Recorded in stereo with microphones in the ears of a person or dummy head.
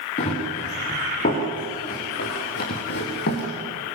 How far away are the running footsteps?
About 6.5 m.